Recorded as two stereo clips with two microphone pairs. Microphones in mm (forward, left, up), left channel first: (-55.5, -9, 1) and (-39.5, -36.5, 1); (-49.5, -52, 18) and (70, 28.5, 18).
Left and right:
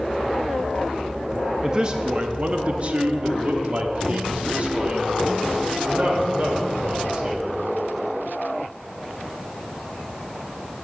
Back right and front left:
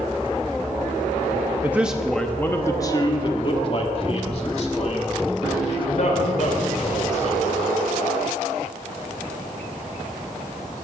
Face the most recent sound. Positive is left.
turn(degrees=-115)